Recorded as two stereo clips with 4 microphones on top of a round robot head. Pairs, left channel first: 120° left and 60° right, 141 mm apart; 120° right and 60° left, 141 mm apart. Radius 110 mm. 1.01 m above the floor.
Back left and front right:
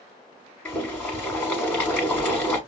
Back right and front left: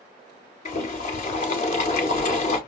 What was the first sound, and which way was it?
Boiling, 160° right.